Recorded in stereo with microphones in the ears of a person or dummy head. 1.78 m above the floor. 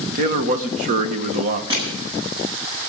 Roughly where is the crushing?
Right.